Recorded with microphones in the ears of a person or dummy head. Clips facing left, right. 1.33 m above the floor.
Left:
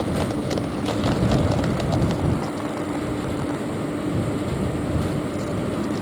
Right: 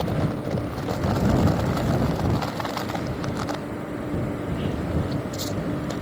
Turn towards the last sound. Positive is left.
No sound to turn to.